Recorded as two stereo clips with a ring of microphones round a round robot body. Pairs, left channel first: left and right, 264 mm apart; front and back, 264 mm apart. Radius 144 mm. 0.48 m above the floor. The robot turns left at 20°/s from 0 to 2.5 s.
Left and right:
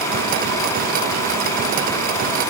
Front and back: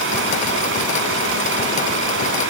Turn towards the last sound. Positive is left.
No sound to turn to.